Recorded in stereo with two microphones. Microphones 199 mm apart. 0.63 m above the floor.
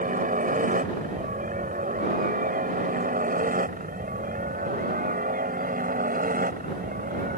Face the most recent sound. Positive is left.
turn(degrees=-45)  # may be behind; listen again after turning